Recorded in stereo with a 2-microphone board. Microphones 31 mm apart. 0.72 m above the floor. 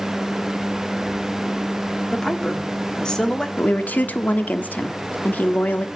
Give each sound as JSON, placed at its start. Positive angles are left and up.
{"t": 2.1, "sound": "a woman speaking", "side_deg": 20, "distance_m": 1.8}
{"t": 3.6, "sound": "a woman speaking", "side_deg": 70, "distance_m": 1.2}